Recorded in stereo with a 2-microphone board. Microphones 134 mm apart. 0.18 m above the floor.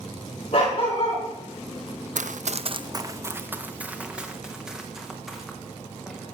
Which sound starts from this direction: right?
Running footsteps, at 2.1 s.